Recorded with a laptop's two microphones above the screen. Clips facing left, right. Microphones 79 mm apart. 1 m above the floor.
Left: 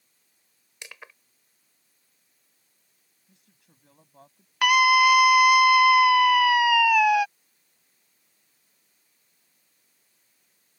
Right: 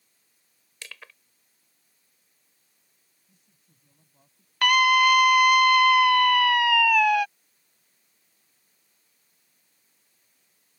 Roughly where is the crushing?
Centre.